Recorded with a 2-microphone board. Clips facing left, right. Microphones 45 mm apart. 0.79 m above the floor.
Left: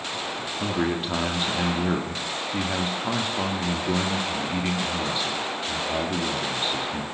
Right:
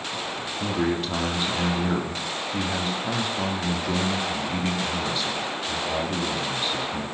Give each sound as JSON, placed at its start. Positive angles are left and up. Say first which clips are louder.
{"t": 0.6, "sound": "a man speaking", "louder": "right 1 dB", "side_deg": 15, "distance_m": 1.7}